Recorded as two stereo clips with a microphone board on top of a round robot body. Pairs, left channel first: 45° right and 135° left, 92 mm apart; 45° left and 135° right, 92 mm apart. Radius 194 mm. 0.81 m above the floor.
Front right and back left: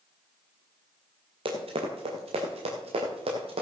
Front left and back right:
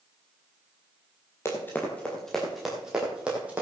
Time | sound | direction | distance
1.4 | running footsteps | 110° left | 1.6 m